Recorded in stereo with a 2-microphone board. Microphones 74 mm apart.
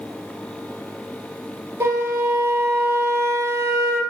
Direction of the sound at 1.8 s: 40° right (ahead or behind).